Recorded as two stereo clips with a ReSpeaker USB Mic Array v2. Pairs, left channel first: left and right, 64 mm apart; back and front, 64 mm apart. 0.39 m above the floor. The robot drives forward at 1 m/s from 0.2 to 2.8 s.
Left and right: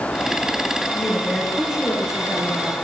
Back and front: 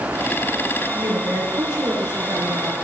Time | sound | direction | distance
0.9 | a woman speaking | 15° right | 8 m